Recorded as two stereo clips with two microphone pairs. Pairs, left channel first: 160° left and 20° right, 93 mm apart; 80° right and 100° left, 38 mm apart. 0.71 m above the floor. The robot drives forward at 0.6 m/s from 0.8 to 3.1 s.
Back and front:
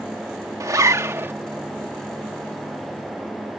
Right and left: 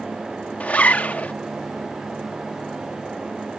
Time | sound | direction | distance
0.6 | a zipper | 55° right | ?